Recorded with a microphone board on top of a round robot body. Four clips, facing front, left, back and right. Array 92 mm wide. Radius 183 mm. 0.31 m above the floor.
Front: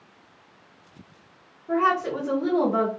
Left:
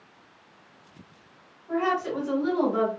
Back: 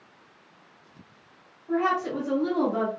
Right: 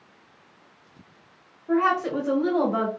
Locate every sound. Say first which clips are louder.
1.7 s a woman speaking: right 4 dB, front 3 dB; 70° right, 1.9 m; by 2.9 s 75° right, 2.5 m